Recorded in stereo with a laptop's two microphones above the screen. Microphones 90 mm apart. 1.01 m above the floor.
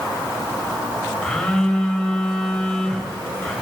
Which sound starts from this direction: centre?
A phone buzzing, at 1.2 s.